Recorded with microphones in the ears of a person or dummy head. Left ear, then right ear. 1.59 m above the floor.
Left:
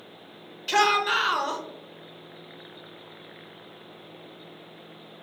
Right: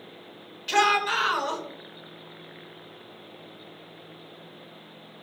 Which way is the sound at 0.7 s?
5° left (ahead or behind).